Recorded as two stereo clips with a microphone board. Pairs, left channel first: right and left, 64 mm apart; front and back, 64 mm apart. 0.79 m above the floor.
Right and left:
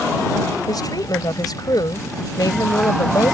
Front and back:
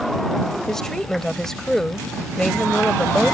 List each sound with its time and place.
0.7 s a woman speaking: 80° right